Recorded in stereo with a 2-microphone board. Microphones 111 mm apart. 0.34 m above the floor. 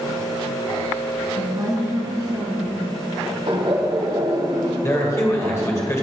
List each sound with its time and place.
1.3 s a woman speaking: 30° right (ahead or behind), 3.5 m; by 2.9 s 40° right (ahead or behind), 4 m
3.5 s laughter: 55° right (ahead or behind), 1.5 m
4.8 s a man speaking: 25° left (ahead or behind), 1.5 m